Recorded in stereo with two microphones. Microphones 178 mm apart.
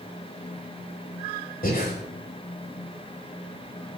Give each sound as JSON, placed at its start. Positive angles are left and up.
{"t": 1.6, "sound": "breathing", "side_deg": 55, "distance_m": 5.5}